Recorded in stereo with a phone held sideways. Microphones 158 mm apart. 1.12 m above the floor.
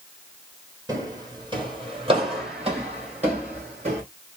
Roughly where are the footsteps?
Right.